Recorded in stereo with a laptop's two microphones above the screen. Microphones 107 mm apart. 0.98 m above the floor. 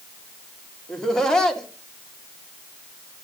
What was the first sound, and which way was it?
Laughter, 5° left (ahead or behind).